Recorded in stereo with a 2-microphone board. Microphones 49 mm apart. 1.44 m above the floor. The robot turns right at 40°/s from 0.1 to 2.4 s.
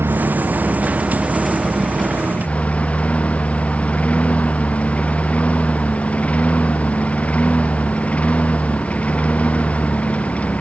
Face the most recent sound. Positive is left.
turn(degrees=30)